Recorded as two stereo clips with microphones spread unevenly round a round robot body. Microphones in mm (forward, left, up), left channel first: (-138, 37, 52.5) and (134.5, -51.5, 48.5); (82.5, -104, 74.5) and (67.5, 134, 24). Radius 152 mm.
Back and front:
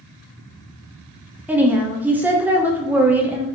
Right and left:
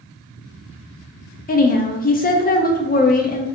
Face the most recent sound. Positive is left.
turn(degrees=-90)